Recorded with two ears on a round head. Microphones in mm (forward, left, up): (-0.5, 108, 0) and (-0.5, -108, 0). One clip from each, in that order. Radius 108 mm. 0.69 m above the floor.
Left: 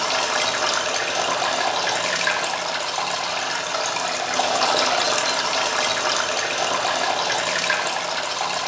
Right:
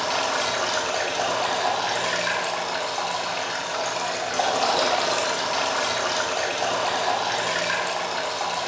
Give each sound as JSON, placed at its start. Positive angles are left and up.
{"t": 0.0, "sound": "running water", "side_deg": 25, "distance_m": 1.3}